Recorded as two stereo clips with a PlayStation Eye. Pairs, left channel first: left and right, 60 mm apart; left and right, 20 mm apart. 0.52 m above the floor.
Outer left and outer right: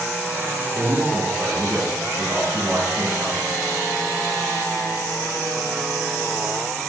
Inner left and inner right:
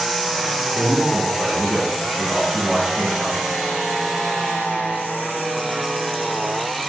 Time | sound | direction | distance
0.7 | a man speaking | 55° right (ahead or behind) | 3 m